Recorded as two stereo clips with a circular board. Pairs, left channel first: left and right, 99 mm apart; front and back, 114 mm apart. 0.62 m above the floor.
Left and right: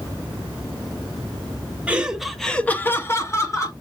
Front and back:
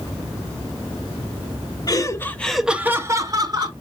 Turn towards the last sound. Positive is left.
turn(degrees=140)